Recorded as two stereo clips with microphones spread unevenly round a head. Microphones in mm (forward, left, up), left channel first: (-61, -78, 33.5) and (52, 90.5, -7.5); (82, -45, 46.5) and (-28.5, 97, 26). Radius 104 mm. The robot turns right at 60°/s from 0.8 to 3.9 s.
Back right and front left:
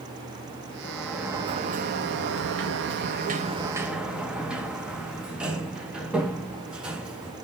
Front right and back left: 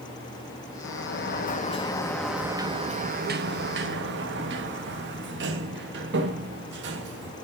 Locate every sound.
0.8 s a sliding door: 45° right, 0.9 m; by 7.3 s 140° left, 0.9 m